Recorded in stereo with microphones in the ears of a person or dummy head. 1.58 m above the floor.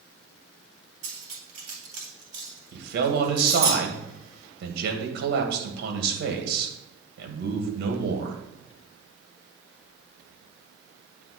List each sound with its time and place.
1.0 s cutlery clinking: 35° right (ahead or behind), 2.5 m
2.7 s a man speaking: 60° right (ahead or behind), 2.5 m